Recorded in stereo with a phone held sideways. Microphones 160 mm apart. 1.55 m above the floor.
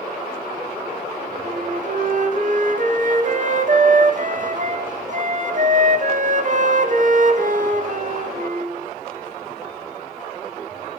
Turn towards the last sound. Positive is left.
turn(degrees=-55)  # may be behind; listen again after turning